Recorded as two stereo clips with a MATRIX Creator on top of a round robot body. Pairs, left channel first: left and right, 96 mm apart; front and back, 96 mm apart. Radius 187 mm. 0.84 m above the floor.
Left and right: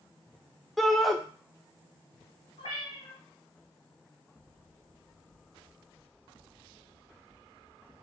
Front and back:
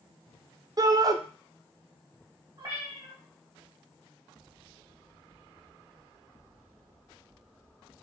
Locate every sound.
0.8 s a shout: 175° left, 0.6 m
2.6 s a cat meowing: 140° left, 0.7 m